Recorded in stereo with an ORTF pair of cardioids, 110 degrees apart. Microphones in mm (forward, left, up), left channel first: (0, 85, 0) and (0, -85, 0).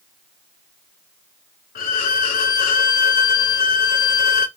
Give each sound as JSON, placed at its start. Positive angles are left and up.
{"t": 1.8, "sound": "a violin", "azimuth_deg": 55, "distance_m": 0.9}